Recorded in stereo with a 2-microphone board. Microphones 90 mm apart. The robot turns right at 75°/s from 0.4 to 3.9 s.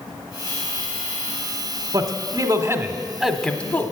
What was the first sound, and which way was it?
A man speaking, 35° right (ahead or behind).